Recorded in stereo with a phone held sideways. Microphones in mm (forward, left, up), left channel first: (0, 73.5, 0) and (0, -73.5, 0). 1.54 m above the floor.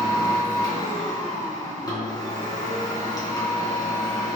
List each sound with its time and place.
0.0 s a machine running: 25° left (ahead or behind), 3.5 m